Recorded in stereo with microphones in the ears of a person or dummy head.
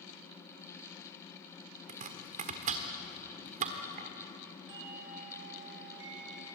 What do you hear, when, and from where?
1.9 s chopping: 35° right (ahead or behind), 1.3 m
4.7 s a doorbell: 55° right (ahead or behind), 3 m